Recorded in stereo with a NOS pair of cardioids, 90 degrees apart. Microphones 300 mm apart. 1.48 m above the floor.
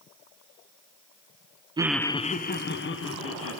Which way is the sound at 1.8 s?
15° right.